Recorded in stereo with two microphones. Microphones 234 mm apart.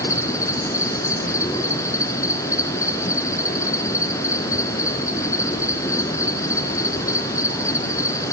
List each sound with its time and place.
0.0 s an insect: 10° left (ahead or behind), 1.8 m